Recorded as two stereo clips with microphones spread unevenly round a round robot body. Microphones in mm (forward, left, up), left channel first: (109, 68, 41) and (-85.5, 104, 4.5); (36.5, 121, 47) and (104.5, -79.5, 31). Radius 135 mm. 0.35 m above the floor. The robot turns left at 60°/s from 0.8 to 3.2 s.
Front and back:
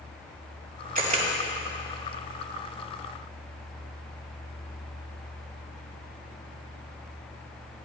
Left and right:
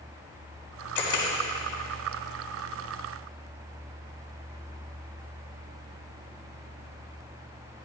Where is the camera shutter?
130° left, 4.5 m; by 1.2 s 110° left, 4.5 m.